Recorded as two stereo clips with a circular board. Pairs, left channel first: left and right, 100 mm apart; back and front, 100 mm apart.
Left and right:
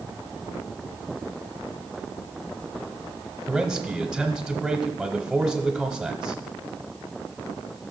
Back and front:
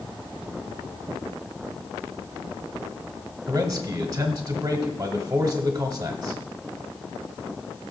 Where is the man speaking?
5° right, 1.0 m.